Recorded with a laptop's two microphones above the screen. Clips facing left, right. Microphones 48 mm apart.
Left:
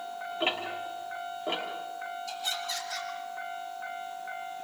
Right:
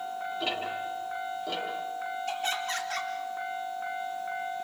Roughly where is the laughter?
Right.